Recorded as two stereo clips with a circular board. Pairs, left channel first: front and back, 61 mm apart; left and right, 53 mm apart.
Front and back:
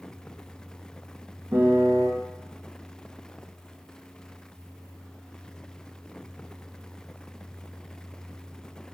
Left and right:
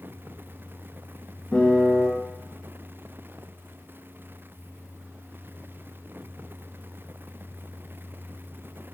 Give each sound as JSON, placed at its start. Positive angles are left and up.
{"t": 1.5, "sound": "a piano", "azimuth_deg": 145, "distance_m": 1.4}